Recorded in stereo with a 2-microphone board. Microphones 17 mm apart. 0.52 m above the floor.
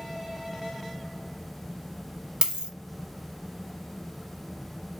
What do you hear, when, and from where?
2.4 s a dropped coin: 55° right (ahead or behind), 0.6 m